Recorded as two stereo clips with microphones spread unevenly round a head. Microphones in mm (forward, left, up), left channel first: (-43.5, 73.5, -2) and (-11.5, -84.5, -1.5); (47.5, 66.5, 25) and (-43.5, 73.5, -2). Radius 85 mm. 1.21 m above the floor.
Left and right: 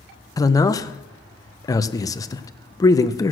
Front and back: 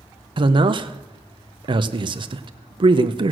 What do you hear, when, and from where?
0.4 s a man speaking: 170° left, 0.7 m